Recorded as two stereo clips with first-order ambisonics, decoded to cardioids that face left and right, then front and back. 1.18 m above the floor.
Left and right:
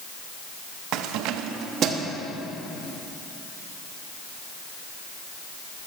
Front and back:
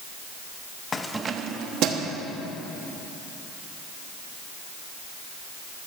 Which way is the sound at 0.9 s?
65° right.